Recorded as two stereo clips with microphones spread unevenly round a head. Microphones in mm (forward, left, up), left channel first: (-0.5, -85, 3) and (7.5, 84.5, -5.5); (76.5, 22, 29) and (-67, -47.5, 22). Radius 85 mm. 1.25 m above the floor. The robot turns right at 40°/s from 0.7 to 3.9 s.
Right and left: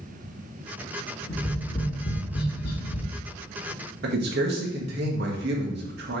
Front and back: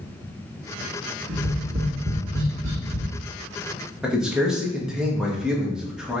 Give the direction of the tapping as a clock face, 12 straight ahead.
6 o'clock.